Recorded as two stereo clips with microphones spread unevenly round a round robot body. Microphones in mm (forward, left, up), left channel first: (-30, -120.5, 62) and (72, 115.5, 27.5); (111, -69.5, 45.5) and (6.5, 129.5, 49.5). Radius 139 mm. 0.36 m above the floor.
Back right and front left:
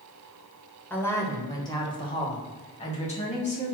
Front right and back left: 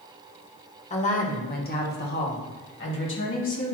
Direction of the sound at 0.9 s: 25° right.